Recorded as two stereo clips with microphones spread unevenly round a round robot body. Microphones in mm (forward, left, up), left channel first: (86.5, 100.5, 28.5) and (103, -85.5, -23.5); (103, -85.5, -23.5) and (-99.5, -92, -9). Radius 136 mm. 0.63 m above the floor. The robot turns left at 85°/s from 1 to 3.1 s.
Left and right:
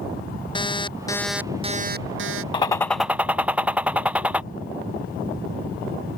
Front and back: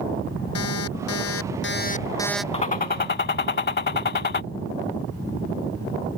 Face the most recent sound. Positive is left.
turn(degrees=10)